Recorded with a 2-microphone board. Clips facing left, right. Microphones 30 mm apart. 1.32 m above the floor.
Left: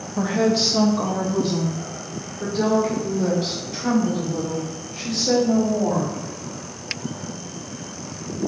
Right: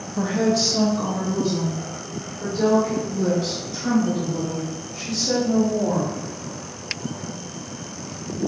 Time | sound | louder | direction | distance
0.2 | a woman speaking | left 1 dB | 5° left (ahead or behind) | 0.6 m